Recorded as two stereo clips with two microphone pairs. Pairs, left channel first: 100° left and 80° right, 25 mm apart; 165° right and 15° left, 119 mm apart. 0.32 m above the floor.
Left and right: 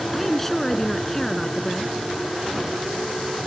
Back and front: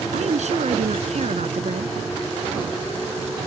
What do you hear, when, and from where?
0.1 s a woman speaking: 15° left